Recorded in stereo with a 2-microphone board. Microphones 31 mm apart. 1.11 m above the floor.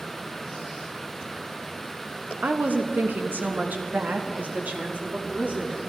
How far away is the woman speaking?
About 1.3 m.